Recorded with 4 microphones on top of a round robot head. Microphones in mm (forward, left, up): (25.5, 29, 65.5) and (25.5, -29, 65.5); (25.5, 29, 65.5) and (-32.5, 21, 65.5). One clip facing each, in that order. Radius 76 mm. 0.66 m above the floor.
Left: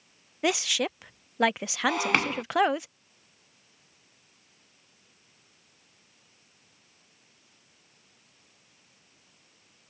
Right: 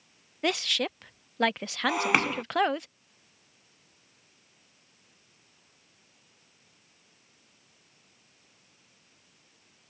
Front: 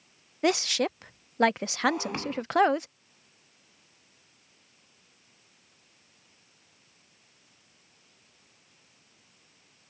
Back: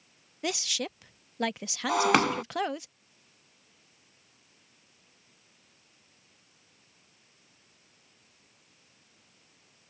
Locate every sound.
0.4 s a woman speaking: 10° left
1.9 s breaking glass: 175° right